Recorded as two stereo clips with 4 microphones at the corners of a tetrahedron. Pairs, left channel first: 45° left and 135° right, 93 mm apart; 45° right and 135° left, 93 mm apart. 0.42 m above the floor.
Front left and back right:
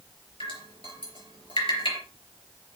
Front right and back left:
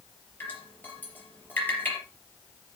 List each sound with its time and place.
0.4 s dripping: 25° left, 4 m